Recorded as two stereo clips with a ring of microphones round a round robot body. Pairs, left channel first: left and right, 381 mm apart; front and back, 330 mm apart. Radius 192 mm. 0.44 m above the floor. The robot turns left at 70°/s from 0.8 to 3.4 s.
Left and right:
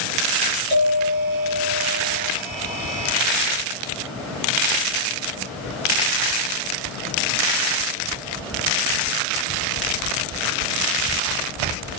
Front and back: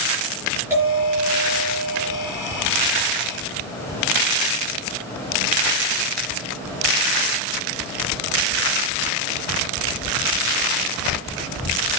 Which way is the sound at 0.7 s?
95° right.